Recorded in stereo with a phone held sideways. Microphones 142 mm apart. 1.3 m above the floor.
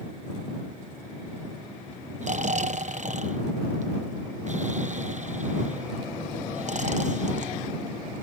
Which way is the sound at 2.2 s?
55° right (ahead or behind).